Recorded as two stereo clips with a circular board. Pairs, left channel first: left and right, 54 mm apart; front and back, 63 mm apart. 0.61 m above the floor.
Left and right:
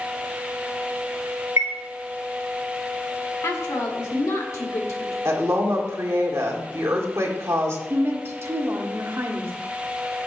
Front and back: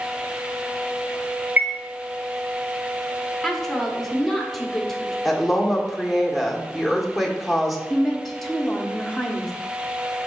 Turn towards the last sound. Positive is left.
turn(degrees=-85)